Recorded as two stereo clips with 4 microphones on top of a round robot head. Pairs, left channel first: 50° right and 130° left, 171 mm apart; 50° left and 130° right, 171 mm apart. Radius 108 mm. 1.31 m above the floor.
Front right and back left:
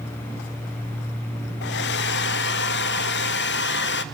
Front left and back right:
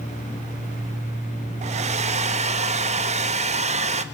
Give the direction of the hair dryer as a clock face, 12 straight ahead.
3 o'clock.